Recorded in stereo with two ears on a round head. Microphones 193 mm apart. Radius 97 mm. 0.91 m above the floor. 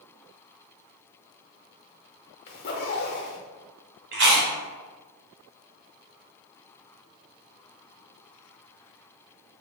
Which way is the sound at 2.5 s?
45° left (ahead or behind).